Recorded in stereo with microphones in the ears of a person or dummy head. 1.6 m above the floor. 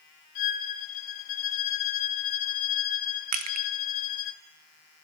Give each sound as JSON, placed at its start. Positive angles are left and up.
{"t": 0.3, "sound": "a violin", "side_deg": 45, "distance_m": 0.8}
{"t": 3.3, "sound": "crushing", "side_deg": -40, "distance_m": 0.8}